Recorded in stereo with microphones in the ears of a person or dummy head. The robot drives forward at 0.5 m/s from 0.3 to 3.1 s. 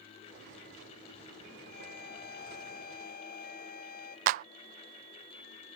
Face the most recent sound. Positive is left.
turn(degrees=-50)  # may be behind; listen again after turning